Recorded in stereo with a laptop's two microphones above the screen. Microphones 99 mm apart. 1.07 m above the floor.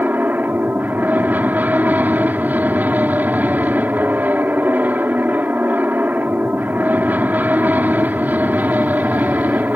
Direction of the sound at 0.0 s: 15° right (ahead or behind).